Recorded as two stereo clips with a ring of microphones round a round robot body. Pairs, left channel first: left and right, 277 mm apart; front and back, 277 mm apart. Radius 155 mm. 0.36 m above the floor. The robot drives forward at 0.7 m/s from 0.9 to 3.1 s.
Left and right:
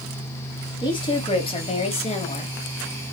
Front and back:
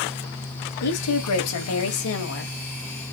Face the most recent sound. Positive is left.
turn(degrees=40)